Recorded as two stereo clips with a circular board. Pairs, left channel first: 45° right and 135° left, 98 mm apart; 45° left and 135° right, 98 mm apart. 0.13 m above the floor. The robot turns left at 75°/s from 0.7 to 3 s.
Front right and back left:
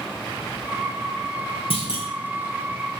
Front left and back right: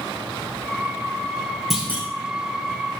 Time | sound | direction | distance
1.7 | a clunk | 45° right | 4 m